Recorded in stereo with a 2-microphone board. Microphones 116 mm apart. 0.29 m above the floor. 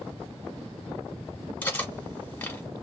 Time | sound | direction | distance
1.6 | cutlery clinking | 15° left (ahead or behind) | 1.3 m